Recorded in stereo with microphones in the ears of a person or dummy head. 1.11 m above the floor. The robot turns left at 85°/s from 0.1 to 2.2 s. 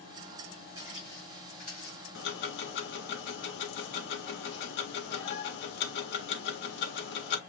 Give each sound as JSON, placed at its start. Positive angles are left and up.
{"t": 0.8, "sound": "footsteps", "side_deg": -25, "distance_m": 5.0}
{"t": 2.1, "sound": "ticking", "side_deg": 65, "distance_m": 1.7}